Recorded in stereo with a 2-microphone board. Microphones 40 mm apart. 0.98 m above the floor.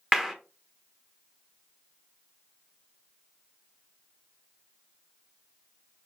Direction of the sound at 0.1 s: 10° right (ahead or behind).